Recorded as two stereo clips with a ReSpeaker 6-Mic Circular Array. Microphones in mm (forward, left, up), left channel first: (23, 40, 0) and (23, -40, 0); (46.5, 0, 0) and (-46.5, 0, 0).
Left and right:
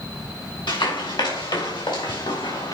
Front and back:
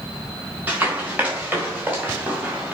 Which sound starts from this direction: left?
Running footsteps, at 0.7 s.